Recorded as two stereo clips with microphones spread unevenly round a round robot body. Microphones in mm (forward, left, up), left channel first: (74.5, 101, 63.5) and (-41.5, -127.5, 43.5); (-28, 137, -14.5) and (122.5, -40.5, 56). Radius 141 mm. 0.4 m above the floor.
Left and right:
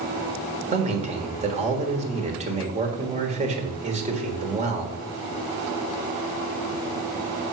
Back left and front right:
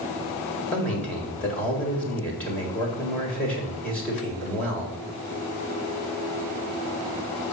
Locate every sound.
0.7 s a man speaking: 165° right, 1.6 m